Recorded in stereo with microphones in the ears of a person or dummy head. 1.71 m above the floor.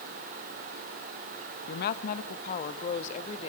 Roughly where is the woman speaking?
Left.